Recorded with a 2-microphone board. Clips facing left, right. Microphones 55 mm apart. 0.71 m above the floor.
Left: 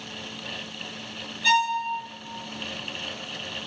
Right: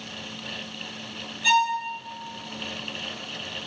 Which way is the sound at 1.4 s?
5° right (ahead or behind).